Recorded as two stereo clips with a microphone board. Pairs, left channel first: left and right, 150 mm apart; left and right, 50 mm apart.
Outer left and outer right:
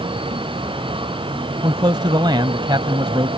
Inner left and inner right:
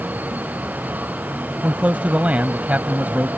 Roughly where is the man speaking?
Right.